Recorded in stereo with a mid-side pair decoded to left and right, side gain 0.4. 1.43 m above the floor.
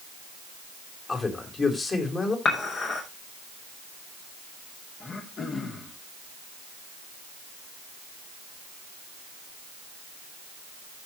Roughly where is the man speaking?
Ahead left.